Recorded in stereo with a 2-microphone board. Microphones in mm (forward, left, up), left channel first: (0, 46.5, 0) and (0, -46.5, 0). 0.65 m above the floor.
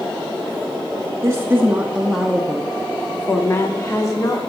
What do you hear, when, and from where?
1.2 s a woman speaking: 30° right (ahead or behind), 0.9 m; by 4.4 s 35° left (ahead or behind), 1.6 m